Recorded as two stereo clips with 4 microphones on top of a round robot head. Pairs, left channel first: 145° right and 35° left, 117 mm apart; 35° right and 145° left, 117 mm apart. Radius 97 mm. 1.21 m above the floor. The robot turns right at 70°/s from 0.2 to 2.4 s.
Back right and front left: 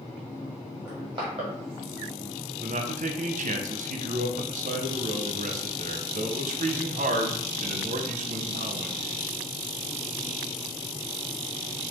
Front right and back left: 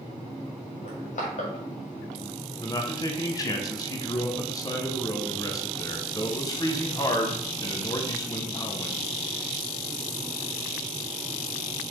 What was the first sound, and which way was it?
Crushing, 35° right.